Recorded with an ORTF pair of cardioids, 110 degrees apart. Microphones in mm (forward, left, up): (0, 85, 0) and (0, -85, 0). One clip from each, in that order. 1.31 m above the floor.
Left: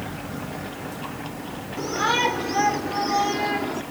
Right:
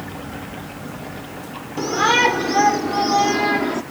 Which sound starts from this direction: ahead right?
A shout, at 1.8 s.